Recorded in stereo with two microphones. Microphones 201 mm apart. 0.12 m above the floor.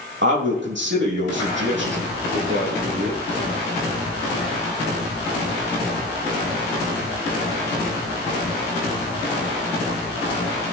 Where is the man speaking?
65° right (ahead or behind), 4 m.